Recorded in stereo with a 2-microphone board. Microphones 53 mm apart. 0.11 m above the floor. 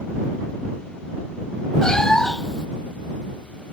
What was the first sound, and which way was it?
A cat meowing, 10° left (ahead or behind).